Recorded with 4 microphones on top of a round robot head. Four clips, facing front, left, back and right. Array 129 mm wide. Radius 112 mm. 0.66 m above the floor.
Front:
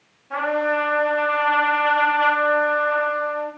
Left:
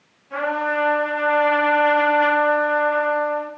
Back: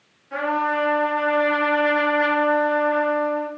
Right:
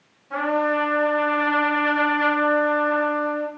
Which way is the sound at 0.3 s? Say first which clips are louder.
Right 1 dB, front 1 dB; 25° right.